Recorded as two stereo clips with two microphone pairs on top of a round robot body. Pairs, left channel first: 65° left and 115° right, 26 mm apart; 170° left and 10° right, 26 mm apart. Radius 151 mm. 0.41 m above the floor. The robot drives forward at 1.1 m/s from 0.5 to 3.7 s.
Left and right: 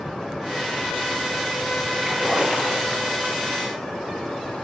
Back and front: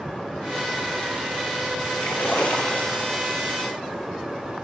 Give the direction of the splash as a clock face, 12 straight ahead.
6 o'clock.